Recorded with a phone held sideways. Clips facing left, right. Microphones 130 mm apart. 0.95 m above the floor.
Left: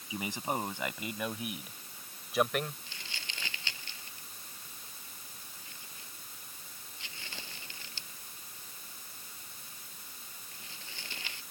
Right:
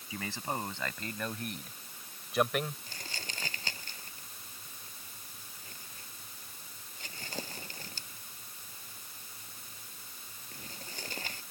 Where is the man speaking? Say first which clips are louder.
Left 2 dB; 15° left (ahead or behind); by 2.8 s 5° right (ahead or behind).